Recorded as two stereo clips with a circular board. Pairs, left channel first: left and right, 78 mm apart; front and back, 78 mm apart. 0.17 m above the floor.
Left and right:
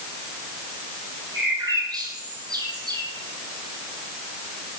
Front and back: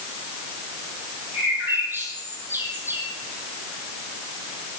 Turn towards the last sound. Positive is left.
turn(degrees=-120)